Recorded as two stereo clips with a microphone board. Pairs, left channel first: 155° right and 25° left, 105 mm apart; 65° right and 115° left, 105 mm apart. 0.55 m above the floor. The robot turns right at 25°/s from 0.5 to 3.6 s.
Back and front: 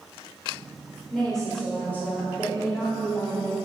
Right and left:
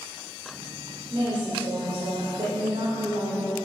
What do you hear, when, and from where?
1.1 s a woman speaking: 110° left, 1.6 m; by 3.6 s 175° left, 1.6 m